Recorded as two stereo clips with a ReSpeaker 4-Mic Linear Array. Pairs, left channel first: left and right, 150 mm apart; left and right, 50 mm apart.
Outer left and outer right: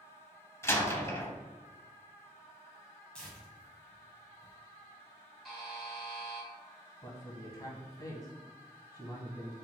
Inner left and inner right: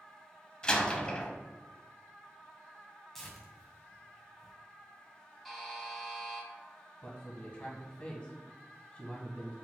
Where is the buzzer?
Centre (ahead or behind), 1.9 m.